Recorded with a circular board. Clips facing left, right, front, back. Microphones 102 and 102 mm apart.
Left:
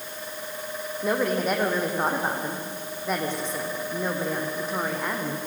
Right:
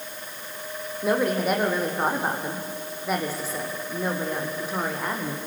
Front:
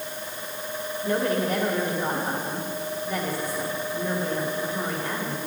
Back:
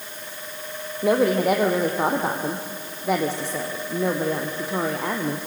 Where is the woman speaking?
175° right, 4.5 m.